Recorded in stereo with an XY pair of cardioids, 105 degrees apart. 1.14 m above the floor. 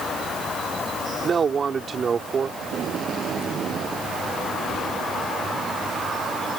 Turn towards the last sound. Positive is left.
turn(degrees=-55)